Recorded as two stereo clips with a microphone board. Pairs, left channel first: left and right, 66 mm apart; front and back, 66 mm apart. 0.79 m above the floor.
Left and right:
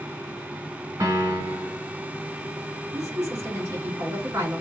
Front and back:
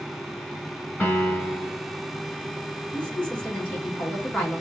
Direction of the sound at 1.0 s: 70° right.